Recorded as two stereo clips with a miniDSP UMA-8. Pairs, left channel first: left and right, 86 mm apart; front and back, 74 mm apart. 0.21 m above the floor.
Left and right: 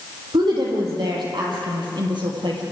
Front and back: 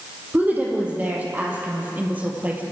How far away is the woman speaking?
About 7 m.